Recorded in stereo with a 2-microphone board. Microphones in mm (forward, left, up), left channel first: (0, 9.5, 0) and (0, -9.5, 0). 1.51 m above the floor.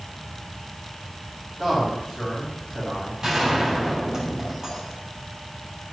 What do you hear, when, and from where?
1.6 s a man speaking: 20° left (ahead or behind), 4 m
3.2 s a gunshot: 20° right (ahead or behind), 3 m